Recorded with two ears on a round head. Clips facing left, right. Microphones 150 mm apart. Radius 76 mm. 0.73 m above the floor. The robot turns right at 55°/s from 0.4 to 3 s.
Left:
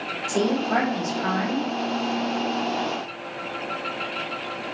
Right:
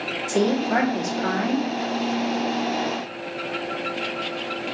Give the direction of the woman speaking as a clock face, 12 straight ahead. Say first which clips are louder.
Right 2 dB; 6 o'clock.